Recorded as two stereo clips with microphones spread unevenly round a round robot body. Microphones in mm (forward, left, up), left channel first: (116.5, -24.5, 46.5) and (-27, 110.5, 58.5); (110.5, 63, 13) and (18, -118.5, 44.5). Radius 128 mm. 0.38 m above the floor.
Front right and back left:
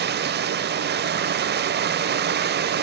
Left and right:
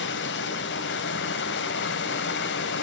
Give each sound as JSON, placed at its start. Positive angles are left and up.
{"t": 0.0, "sound": "running water", "azimuth_deg": 100, "distance_m": 0.7}